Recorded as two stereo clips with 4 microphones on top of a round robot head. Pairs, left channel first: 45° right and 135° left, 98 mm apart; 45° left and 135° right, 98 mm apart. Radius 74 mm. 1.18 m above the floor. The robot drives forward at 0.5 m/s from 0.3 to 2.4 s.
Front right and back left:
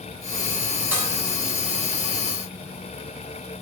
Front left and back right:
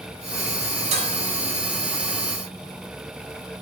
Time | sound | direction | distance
0.9 | dishes clattering | 150° right | 5.5 m